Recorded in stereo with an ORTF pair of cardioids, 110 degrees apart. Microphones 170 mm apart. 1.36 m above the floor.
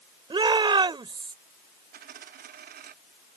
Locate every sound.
0.3 s a shout: 25° right
1.9 s a dropped coin: 60° right